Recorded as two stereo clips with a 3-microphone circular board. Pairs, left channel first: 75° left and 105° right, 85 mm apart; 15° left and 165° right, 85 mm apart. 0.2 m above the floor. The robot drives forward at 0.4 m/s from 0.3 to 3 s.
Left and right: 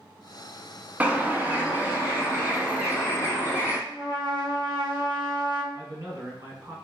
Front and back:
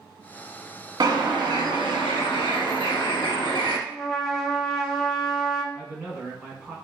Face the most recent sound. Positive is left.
turn(degrees=-95)